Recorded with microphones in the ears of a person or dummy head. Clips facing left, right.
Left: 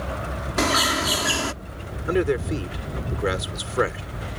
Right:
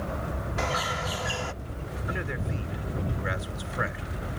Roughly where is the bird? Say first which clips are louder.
Left 9 dB; left.